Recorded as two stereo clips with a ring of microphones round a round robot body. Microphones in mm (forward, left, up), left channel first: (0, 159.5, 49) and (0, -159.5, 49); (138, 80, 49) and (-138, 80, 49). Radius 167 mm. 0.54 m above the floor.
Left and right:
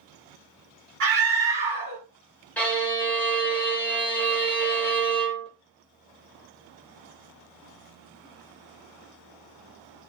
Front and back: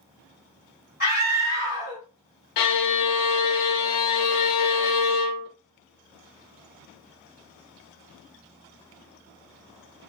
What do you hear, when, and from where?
1.0 s a scream: 50° right, 2.0 m
2.6 s a violin: 5° left, 0.5 m